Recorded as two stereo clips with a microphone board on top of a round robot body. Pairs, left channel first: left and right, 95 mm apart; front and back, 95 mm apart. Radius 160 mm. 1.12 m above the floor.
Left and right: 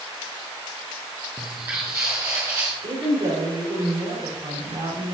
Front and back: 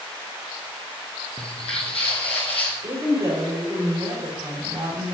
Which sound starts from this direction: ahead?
Footsteps, at 1.4 s.